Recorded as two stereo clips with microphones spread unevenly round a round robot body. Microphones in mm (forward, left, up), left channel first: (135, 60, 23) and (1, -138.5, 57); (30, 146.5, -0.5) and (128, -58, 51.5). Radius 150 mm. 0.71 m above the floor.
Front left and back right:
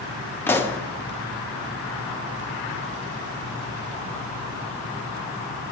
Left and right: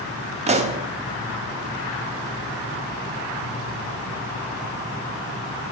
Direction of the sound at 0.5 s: 5° right.